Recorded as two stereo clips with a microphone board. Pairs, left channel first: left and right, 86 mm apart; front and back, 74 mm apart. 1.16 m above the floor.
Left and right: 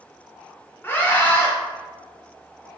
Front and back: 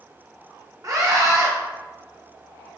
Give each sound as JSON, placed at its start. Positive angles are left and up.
{"t": 0.8, "sound": "a scream", "azimuth_deg": 150, "distance_m": 1.0}